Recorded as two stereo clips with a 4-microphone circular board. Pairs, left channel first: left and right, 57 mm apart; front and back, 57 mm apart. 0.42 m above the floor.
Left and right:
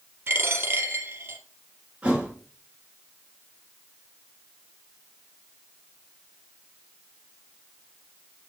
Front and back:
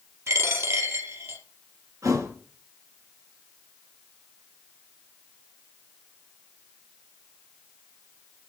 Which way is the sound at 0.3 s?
140° right.